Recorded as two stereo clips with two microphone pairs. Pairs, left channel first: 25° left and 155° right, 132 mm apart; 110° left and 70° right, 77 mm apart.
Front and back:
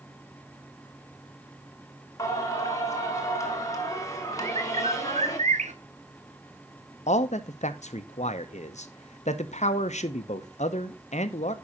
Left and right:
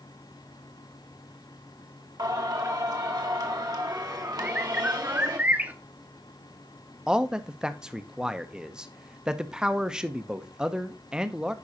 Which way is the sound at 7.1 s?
5° left.